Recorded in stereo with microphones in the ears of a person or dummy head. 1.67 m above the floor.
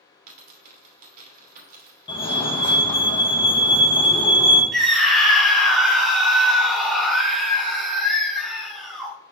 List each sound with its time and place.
0.3 s a dropped coin: 50° right (ahead or behind), 1.9 m
2.1 s a fire alarm: 30° left (ahead or behind), 1.6 m
4.7 s a scream: centre (ahead or behind), 1.8 m